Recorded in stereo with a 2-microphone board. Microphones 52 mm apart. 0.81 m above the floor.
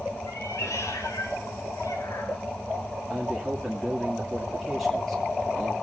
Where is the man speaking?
Centre (ahead or behind), 2 m.